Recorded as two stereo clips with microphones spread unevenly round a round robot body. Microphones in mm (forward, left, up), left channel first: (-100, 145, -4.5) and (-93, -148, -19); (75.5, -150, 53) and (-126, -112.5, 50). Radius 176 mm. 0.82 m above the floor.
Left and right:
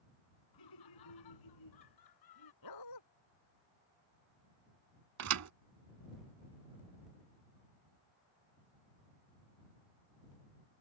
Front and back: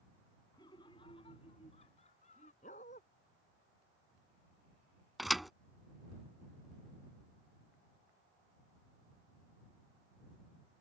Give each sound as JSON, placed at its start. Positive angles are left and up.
{"t": 0.5, "sound": "laughter", "azimuth_deg": 70}
{"t": 2.6, "sound": "a dog barking", "azimuth_deg": 60}
{"t": 5.2, "sound": "a thud", "azimuth_deg": -100}